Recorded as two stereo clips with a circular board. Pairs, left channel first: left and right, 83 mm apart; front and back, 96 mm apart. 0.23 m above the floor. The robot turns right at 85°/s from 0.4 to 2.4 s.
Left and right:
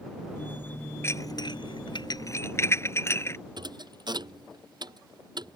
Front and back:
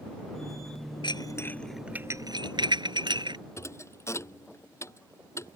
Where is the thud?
60° right.